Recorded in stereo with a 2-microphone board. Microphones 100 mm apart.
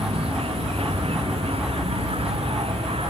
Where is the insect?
70° right (ahead or behind).